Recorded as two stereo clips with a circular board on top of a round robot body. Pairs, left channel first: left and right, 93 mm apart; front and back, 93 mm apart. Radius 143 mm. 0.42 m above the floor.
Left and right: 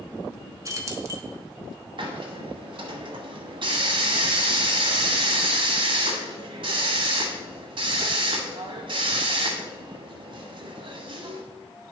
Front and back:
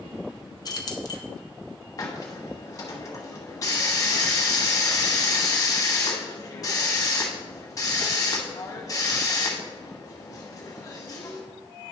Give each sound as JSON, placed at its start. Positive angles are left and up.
{"t": 0.7, "sound": "keys jangling", "azimuth_deg": -40, "distance_m": 1.2}
{"t": 2.0, "sound": "a hiss", "azimuth_deg": -55, "distance_m": 1.2}